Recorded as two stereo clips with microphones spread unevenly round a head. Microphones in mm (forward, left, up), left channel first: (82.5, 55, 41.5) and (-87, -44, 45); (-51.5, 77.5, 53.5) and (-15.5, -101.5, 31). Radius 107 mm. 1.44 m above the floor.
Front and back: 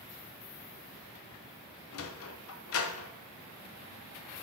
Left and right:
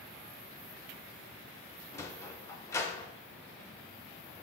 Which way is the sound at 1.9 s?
25° left.